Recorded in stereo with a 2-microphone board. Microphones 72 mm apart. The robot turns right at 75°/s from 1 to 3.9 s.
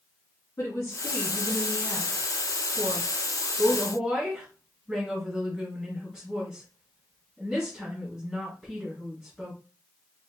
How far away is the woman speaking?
About 2.5 m.